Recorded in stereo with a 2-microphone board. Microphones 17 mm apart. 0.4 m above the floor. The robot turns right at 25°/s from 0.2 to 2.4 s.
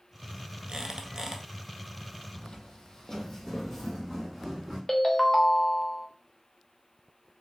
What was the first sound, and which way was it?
A squeak, 60° right (ahead or behind).